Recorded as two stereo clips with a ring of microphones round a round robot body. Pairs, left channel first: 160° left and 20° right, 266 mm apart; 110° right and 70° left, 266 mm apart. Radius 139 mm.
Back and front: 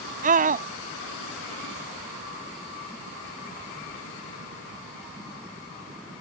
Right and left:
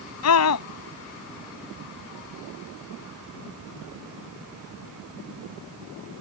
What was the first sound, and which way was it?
A scream, 85° right.